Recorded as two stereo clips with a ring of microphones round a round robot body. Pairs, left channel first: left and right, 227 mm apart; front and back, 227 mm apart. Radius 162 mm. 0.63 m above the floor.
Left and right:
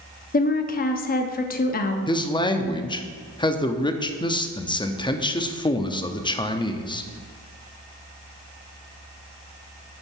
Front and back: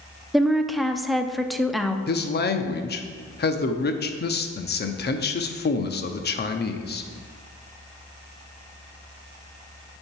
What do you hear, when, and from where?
0.3 s a woman speaking: 90° left, 0.7 m
2.1 s a man speaking: 25° left, 0.8 m